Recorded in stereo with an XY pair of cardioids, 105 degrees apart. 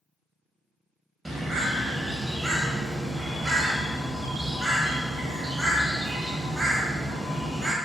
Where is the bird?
20° right, 0.7 m.